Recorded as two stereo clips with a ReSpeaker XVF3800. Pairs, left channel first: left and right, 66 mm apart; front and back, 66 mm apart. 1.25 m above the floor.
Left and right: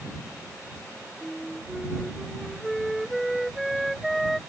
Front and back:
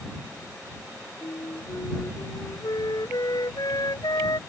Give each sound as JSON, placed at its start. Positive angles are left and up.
{"t": 1.2, "sound": "a flute", "azimuth_deg": 0}